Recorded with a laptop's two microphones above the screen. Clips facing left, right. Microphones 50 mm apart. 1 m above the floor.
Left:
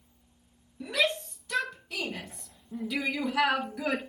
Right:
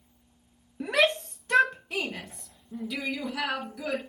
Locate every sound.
0.8 s a shout: 60° right (ahead or behind), 1.2 m; by 4.0 s 35° left (ahead or behind), 1.6 m